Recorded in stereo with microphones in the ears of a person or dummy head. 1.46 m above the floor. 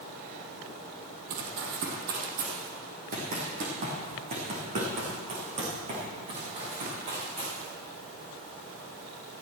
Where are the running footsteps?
50° right (ahead or behind), 2 m; by 7.7 s 40° right (ahead or behind), 7 m.